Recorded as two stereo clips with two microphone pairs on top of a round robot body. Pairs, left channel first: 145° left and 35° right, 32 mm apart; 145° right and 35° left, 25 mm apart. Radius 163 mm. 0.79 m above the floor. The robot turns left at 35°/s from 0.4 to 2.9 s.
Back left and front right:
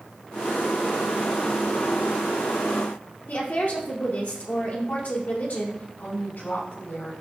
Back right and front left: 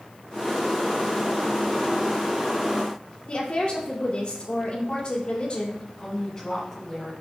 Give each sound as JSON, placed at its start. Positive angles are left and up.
{"t": 3.3, "sound": "a woman speaking", "azimuth_deg": 170, "distance_m": 2.5}
{"t": 6.0, "sound": "a woman speaking", "azimuth_deg": 150, "distance_m": 4.0}